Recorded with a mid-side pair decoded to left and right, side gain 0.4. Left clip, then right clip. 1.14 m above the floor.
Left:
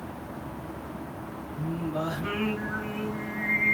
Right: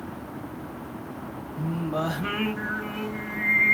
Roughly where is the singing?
Ahead right.